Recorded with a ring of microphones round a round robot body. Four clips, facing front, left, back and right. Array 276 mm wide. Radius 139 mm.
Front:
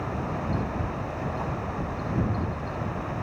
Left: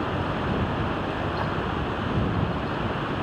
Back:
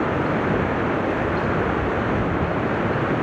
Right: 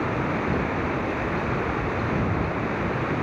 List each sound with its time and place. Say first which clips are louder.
0.0 s running water: right 2 dB, back 10 dB; 170° right